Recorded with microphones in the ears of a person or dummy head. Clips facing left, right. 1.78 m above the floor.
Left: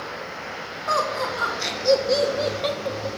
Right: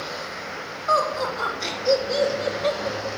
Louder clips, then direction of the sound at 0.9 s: Right 2 dB; 65° left (ahead or behind).